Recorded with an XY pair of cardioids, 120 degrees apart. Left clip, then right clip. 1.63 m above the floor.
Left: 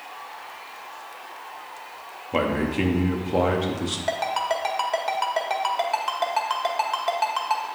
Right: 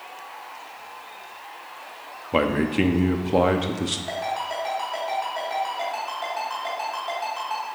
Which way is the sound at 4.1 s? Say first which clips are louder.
Left 3 dB; 60° left.